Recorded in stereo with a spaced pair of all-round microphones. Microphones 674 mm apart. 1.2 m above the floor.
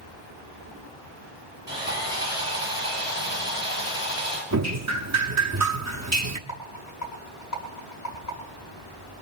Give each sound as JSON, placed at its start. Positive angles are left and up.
{"t": 1.7, "sound": "sawing", "side_deg": 50, "distance_m": 6.5}
{"t": 4.5, "sound": "dripping", "side_deg": -25, "distance_m": 0.9}
{"t": 6.5, "sound": "a rattle", "side_deg": 80, "distance_m": 5.0}